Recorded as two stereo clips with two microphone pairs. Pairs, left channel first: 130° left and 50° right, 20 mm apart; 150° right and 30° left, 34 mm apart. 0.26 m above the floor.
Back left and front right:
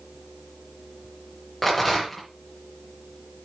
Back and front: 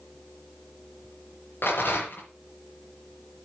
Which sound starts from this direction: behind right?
A rattle, at 1.6 s.